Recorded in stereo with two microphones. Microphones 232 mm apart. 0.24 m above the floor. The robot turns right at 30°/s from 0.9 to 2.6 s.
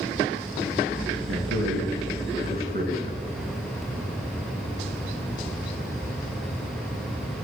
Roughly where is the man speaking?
Right.